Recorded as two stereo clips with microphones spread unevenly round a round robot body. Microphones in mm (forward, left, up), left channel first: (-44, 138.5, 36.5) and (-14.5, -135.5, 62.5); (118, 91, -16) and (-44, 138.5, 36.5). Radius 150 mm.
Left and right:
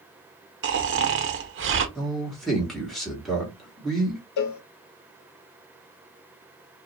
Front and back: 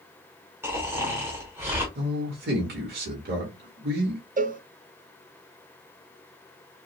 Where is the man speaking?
Straight behind, 1.2 m.